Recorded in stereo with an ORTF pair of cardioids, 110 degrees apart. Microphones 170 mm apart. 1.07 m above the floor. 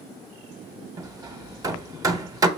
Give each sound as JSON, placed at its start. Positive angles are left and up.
{"t": 1.0, "sound": "hammering", "azimuth_deg": -20, "distance_m": 0.6}